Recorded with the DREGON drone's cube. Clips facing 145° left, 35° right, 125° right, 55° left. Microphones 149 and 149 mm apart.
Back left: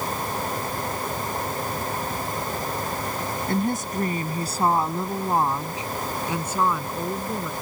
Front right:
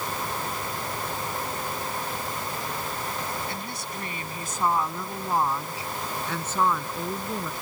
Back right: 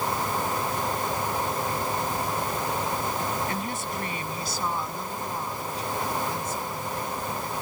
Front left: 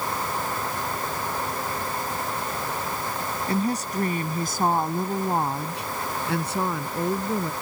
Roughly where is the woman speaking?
Left.